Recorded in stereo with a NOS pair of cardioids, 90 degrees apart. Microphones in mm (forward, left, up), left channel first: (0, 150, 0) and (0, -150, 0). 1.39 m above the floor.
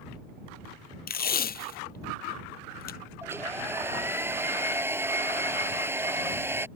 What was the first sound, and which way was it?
Tape being pulled, 30° left.